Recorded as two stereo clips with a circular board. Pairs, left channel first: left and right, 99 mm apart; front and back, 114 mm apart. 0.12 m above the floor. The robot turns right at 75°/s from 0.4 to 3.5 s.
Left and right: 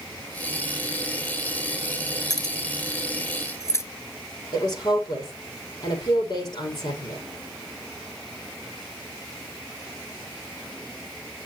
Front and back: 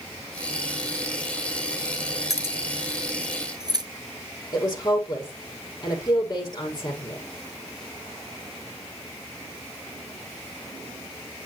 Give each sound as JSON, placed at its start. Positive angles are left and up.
{"t": 2.3, "sound": "keys jangling", "azimuth_deg": 50, "distance_m": 1.2}
{"t": 4.5, "sound": "a woman speaking", "azimuth_deg": 55, "distance_m": 5.5}